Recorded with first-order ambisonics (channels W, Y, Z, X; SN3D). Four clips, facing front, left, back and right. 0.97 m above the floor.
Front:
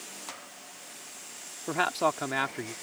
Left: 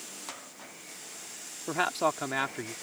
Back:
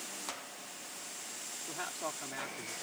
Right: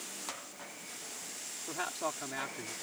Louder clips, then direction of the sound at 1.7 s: Left 9 dB, front 14 dB; 35° left.